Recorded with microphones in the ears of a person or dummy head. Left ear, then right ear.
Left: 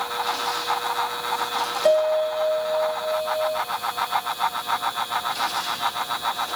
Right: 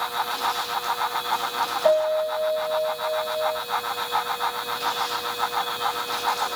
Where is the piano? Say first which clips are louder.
Left 2 dB; 10° left (ahead or behind), 1.8 m.